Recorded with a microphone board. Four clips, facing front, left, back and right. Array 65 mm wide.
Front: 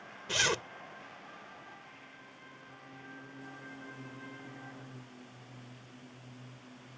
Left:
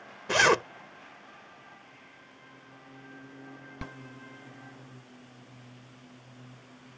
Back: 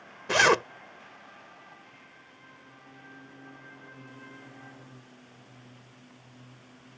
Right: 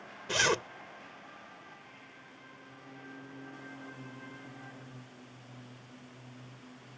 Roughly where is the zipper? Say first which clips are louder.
Left 7 dB, back 11 dB; behind left.